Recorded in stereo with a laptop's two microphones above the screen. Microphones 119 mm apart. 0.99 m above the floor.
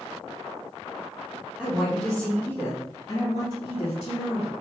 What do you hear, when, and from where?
1.6 s a woman speaking: 10° right (ahead or behind), 1.2 m; by 4.5 s 65° left (ahead or behind), 1.4 m